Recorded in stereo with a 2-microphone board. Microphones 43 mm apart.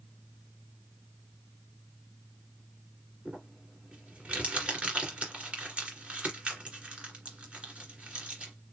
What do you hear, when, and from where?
3.2 s crumpling: 20° right (ahead or behind), 2 m